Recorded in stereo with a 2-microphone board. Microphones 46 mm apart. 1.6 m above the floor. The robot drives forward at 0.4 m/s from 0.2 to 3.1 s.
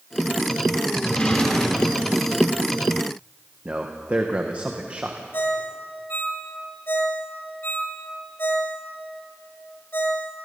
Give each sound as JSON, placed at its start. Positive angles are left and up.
{"t": 1.0, "sound": "a drawer", "side_deg": 25, "distance_m": 3.0}
{"t": 3.6, "sound": "a man speaking", "side_deg": -35, "distance_m": 1.5}
{"t": 5.3, "sound": "a ringtone", "side_deg": 50, "distance_m": 2.5}